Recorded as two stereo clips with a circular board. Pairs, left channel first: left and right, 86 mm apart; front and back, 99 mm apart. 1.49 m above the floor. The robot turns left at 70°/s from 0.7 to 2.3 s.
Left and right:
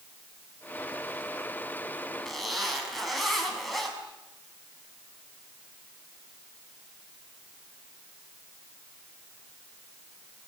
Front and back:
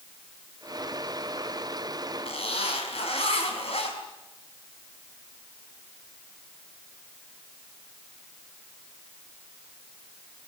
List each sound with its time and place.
2.2 s a zipper: 5° left, 6 m; by 3.9 s straight ahead, 6 m